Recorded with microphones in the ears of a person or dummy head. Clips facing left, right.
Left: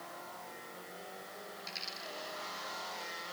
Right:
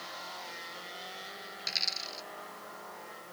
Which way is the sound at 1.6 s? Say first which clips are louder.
Right 1 dB; 70° right (ahead or behind).